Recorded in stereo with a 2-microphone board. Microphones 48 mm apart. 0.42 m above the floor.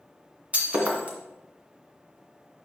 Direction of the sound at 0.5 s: 30° right (ahead or behind).